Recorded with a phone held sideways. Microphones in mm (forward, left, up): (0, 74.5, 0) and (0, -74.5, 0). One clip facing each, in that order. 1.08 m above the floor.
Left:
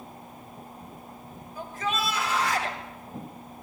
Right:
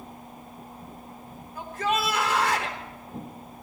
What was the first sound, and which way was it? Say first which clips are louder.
A shout: right 3 dB; 70° right (ahead or behind).